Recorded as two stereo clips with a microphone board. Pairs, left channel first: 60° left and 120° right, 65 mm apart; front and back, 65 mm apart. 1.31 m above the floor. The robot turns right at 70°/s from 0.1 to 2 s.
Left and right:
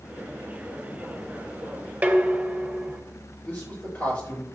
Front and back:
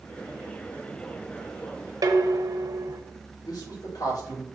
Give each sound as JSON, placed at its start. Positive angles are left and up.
{"t": 2.0, "sound": "dishes clattering", "azimuth_deg": 170, "distance_m": 1.0}
{"t": 3.5, "sound": "a man speaking", "azimuth_deg": -5, "distance_m": 5.0}